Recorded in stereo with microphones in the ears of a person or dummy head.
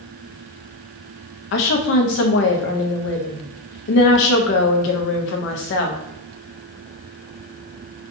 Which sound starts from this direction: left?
A woman speaking, at 1.5 s.